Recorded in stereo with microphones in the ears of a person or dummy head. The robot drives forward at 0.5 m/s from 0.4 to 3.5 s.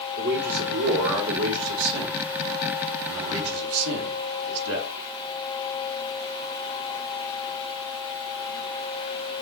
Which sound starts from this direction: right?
A man speaking, at 0.2 s.